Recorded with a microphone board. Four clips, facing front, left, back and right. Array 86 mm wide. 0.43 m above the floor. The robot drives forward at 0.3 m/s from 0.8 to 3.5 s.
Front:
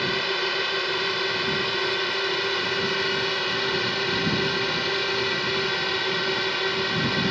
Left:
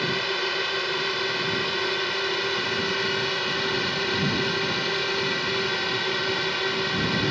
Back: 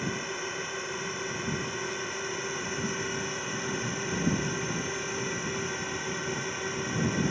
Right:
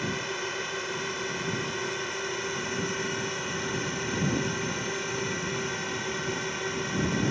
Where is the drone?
35° left.